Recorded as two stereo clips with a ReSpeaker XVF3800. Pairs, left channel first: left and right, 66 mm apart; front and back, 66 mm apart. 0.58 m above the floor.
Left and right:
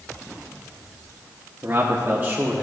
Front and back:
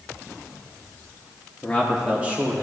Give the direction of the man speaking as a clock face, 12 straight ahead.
2 o'clock.